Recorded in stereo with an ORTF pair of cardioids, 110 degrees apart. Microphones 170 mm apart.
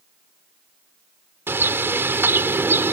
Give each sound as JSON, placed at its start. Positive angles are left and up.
{"t": 1.5, "sound": "a bird", "azimuth_deg": -15}